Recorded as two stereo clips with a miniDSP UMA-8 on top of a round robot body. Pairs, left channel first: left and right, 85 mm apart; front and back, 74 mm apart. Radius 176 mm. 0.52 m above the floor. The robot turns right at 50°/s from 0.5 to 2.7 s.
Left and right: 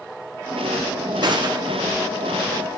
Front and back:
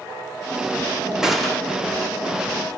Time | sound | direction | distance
1.2 | a gunshot | 100° right | 1.6 m